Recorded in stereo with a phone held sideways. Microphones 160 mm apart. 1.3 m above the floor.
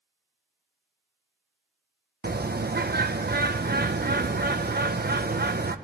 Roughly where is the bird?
Right.